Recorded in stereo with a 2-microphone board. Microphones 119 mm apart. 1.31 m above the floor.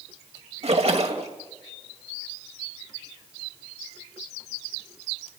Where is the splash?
65° right (ahead or behind), 2 m.